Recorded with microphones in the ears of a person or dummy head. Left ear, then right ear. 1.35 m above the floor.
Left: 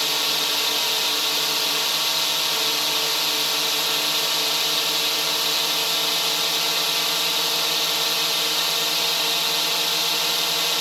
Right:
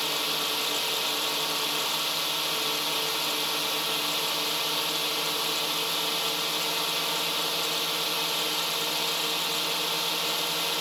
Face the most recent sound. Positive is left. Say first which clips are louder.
# left 6 dB
turn(degrees=20)  # may be behind; listen again after turning